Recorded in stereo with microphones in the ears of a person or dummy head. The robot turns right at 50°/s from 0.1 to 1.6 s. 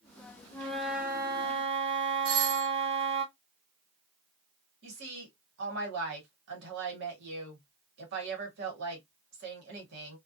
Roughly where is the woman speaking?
Right.